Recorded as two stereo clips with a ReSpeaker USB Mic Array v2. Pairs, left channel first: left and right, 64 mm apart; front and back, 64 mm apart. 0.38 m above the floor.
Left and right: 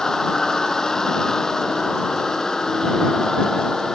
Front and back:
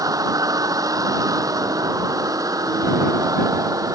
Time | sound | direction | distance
0.0 | a vehicle | 170° left | ?